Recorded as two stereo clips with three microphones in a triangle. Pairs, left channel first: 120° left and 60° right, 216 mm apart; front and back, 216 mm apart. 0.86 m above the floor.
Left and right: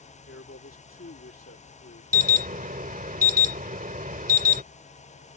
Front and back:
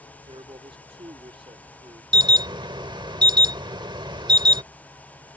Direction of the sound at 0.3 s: 115° left.